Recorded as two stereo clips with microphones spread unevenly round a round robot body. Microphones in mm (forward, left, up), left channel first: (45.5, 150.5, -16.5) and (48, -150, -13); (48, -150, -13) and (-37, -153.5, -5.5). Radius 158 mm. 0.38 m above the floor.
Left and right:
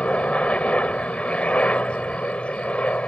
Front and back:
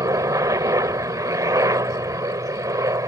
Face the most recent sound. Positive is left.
turn(degrees=175)